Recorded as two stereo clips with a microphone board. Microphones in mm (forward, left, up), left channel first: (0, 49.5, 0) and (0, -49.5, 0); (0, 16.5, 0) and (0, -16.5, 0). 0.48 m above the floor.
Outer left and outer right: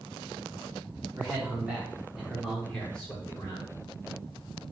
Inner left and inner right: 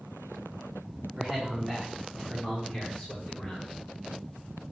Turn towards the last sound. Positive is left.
turn(degrees=30)  # may be behind; listen again after turning